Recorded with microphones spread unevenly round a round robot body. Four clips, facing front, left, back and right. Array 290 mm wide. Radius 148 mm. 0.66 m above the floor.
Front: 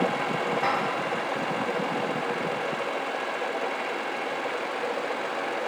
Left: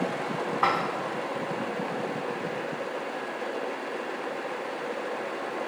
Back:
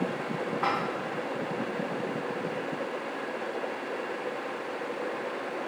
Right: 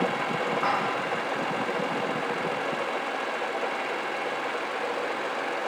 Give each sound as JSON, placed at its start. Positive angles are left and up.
{"t": 0.6, "sound": "dishes clattering", "azimuth_deg": 65, "distance_m": 4.5}